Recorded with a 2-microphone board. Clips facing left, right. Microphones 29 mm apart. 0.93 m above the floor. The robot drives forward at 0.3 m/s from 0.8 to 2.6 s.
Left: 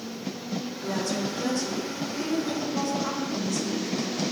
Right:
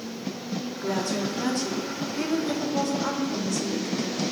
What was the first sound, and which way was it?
A woman speaking, 60° right (ahead or behind).